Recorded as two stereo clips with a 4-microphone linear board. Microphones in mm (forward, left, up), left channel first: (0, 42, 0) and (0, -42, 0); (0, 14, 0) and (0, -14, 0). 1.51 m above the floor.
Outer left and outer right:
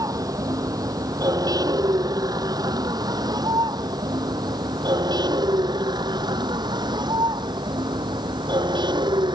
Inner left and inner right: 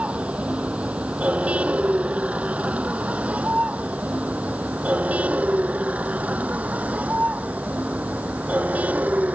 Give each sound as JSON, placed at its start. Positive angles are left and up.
{"t": 0.0, "sound": "a vehicle", "side_deg": -45}